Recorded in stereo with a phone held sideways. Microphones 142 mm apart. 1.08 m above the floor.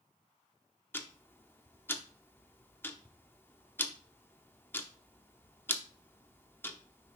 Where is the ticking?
15° left (ahead or behind), 0.7 m.